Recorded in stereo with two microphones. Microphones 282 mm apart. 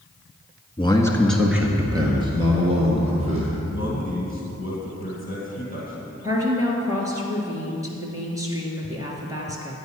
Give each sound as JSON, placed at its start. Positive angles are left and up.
{"t": 0.8, "sound": "a man speaking", "side_deg": 20, "distance_m": 1.1}
{"t": 3.6, "sound": "a man speaking", "side_deg": 45, "distance_m": 2.5}
{"t": 6.2, "sound": "a woman speaking", "side_deg": -10, "distance_m": 2.0}